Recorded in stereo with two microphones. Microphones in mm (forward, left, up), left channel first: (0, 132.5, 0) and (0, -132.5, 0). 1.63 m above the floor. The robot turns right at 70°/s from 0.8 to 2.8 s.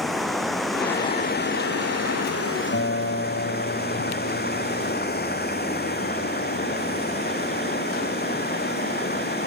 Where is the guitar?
60° left (ahead or behind).